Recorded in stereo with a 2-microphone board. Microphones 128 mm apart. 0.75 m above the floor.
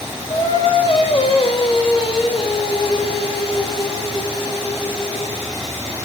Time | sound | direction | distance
0.3 | singing | 45° left (ahead or behind) | 1.5 m